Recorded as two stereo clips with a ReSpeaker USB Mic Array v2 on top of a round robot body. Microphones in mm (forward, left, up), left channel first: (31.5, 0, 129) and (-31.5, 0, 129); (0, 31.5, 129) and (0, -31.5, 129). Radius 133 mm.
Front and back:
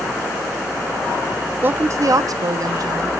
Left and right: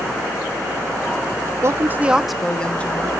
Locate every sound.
1.6 s a woman speaking: 125° right, 0.9 m; by 3.1 s 155° left, 1.5 m